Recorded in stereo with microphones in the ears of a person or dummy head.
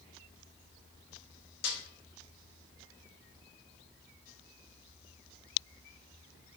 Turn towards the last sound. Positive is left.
turn(degrees=50)  # may be behind; listen again after turning